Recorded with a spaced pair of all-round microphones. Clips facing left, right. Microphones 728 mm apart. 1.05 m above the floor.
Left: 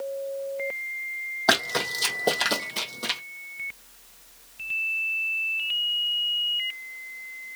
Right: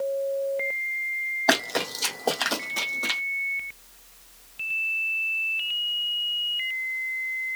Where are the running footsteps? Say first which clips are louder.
Right 2 dB; 40° left (ahead or behind), 1.8 m; by 3.2 s 55° left (ahead or behind), 1.8 m.